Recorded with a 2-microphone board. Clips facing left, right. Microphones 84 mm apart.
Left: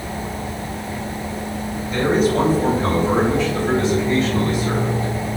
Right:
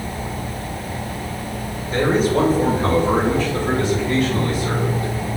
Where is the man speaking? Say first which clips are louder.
Even; 35° right (ahead or behind), 1.7 m; by 5.1 s 55° right (ahead or behind), 3 m.